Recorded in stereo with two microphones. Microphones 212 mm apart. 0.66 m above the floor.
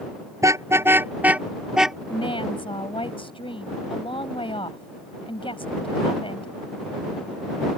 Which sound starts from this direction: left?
A woman speaking, at 2.1 s.